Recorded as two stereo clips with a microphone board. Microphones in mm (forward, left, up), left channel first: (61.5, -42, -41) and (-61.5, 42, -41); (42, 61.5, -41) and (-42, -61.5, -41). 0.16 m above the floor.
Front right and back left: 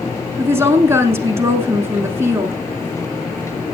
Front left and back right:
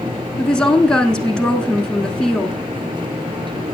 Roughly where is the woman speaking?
Behind left.